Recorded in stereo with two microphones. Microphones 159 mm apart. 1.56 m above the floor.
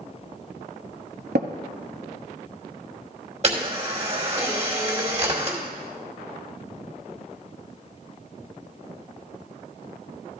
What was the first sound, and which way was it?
Tapping, 85° right.